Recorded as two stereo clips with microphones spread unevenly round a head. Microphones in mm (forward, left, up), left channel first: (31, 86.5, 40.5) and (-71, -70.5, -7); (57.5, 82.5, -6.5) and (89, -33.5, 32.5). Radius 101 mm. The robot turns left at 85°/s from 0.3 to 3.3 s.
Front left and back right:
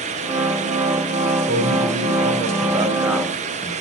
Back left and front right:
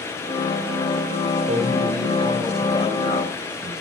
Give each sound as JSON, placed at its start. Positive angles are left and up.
{"t": 1.5, "sound": "a man speaking", "azimuth_deg": -75, "distance_m": 4.5}